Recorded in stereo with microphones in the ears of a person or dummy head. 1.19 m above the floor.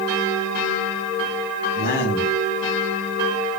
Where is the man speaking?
55° left (ahead or behind), 6 m.